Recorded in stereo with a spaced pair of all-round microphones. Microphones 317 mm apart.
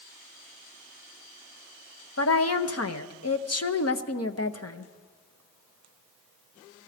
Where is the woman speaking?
50° left (ahead or behind), 0.8 m.